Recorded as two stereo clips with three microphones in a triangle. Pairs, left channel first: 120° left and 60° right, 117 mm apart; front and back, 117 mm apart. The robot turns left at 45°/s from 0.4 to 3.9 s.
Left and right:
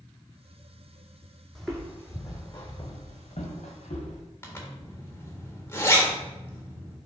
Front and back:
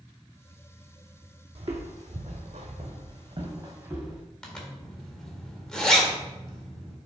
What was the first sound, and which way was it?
Footsteps, 150° right.